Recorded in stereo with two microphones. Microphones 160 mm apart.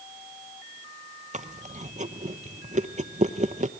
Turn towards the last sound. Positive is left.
turn(degrees=-50)  # may be behind; listen again after turning